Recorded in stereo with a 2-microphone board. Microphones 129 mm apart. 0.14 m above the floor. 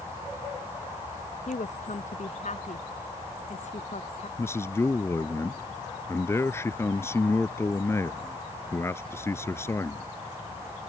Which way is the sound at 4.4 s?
20° left (ahead or behind).